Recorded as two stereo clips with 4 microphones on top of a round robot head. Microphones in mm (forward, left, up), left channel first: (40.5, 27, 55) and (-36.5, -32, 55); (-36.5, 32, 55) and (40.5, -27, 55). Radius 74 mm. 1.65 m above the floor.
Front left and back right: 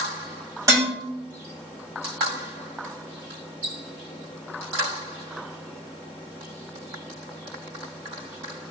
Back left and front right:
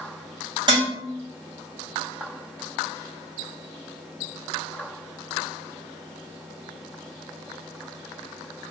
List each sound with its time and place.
0.7 s dishes clattering: 85° right, 1.9 m